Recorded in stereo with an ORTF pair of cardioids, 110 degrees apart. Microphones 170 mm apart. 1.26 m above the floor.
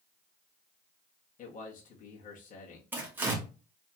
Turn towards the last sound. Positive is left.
turn(degrees=-15)